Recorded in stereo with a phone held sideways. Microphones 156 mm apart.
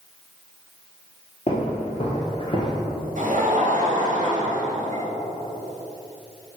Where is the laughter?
60° right (ahead or behind), 1.5 m.